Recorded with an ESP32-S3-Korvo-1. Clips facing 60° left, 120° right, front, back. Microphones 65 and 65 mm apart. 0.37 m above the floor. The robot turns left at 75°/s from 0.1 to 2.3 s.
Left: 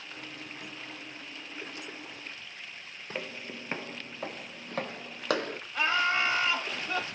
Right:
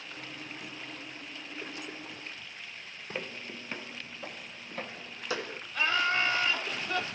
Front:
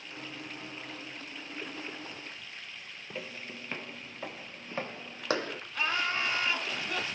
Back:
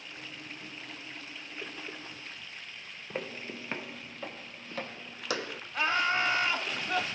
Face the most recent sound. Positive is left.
turn(degrees=130)